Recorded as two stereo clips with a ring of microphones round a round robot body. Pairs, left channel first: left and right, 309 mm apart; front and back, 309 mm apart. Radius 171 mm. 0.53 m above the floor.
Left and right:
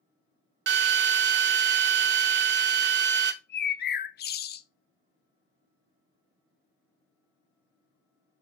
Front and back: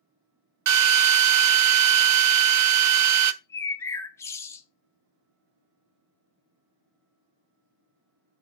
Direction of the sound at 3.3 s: 75° left.